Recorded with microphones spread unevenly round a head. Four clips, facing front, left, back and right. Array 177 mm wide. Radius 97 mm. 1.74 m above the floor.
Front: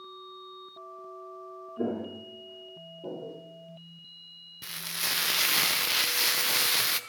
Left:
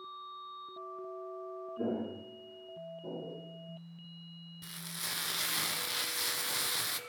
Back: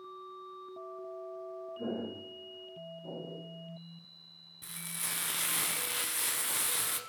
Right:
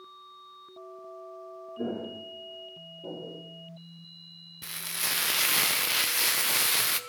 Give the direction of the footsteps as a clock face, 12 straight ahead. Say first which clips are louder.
Right 2 dB, front 7 dB; 12 o'clock.